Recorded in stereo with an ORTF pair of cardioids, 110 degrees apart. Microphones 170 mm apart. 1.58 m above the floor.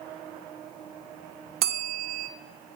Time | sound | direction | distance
1.6 | a bell | 65° right | 0.7 m